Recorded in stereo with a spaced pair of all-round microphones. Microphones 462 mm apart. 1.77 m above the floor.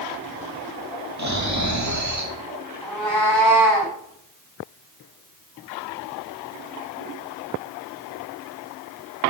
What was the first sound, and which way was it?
Snoring, 35° right (ahead or behind).